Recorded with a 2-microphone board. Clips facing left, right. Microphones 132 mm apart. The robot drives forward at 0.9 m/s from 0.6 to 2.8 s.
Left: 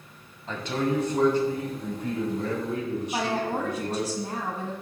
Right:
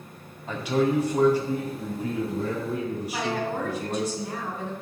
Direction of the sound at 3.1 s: 35° left (ahead or behind).